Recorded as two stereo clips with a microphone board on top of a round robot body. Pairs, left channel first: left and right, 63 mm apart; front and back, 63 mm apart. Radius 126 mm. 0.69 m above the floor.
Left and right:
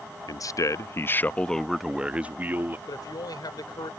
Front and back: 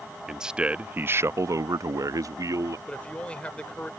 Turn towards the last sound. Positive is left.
turn(degrees=75)